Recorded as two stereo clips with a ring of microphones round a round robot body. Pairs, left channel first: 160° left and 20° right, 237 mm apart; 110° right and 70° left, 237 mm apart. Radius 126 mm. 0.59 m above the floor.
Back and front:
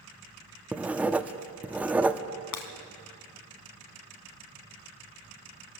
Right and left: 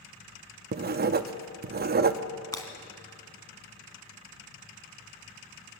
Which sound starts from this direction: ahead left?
Writing, at 0.7 s.